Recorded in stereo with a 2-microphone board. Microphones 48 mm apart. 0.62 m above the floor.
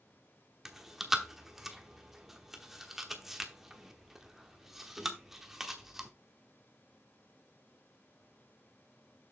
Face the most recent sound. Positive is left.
turn(degrees=-5)  # may be behind; listen again after turning